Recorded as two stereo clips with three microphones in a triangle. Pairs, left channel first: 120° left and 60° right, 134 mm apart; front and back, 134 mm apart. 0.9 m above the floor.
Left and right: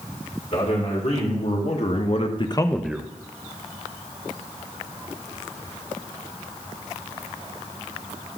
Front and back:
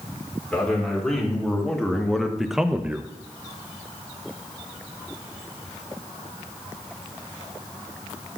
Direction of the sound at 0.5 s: 85° left.